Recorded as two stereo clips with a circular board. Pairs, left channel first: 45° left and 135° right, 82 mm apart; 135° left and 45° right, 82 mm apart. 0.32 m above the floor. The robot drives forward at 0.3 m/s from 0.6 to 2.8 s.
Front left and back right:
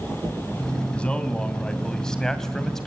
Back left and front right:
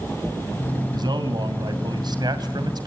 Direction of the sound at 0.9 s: 30° right.